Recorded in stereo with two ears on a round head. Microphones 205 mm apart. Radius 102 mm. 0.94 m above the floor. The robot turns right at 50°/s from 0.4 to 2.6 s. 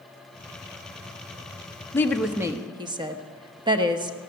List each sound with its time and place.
1.9 s a woman speaking: 165° left, 1.0 m; by 4.2 s 160° right, 1.0 m